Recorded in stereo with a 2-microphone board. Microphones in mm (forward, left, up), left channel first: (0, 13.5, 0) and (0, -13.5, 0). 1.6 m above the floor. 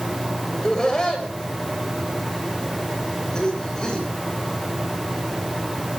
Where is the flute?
I don't hear a flute.